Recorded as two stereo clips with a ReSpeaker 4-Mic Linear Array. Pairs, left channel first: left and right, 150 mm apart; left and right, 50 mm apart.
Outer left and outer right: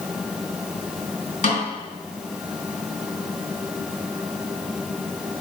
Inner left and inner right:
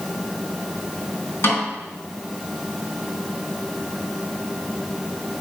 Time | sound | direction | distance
1.4 | a snare drum | 60° left (ahead or behind) | 3.5 m